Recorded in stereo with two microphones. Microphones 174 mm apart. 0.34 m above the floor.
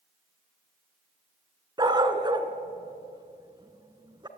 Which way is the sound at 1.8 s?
25° right (ahead or behind).